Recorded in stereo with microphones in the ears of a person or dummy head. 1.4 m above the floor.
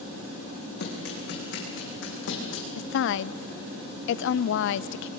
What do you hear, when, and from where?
0.8 s running footsteps: 60° left (ahead or behind), 4.5 m; by 2.6 s 70° left (ahead or behind), 4.5 m
2.8 s a woman speaking: 65° left (ahead or behind), 0.5 m